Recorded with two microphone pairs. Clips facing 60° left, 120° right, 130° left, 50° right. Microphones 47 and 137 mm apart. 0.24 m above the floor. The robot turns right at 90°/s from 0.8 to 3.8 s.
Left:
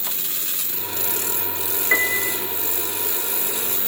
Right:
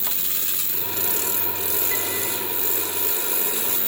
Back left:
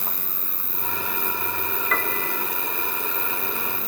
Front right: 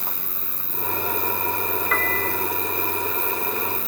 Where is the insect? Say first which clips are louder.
Even, even; 70° right, 5.5 m; by 3.9 s 160° right, 5.5 m.